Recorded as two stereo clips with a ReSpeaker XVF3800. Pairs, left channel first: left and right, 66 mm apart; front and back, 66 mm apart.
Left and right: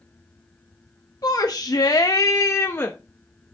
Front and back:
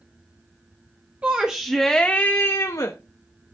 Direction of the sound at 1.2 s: 110° left.